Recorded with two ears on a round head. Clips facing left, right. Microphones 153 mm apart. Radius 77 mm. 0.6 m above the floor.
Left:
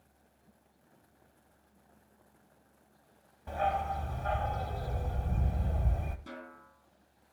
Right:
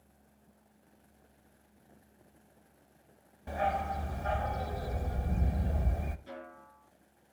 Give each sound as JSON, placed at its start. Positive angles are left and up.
{"t": 3.5, "sound": "a dog barking", "side_deg": -15, "distance_m": 0.9}
{"t": 6.3, "sound": "a snare drum", "side_deg": 60, "distance_m": 4.5}